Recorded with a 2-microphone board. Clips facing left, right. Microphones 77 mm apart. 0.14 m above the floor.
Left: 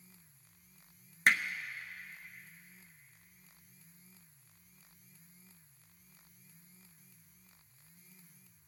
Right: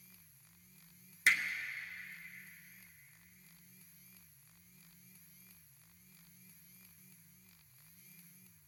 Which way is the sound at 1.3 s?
50° left (ahead or behind).